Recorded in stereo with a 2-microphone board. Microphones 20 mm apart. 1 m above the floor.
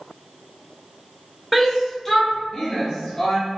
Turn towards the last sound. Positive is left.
turn(degrees=45)  # may be behind; listen again after turning